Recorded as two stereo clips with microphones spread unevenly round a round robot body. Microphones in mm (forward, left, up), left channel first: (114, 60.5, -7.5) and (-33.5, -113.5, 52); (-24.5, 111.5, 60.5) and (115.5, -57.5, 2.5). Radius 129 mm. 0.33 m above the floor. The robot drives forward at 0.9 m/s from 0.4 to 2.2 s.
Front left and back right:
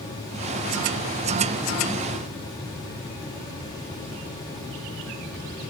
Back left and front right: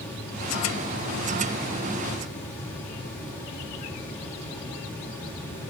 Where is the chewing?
No chewing in this recording.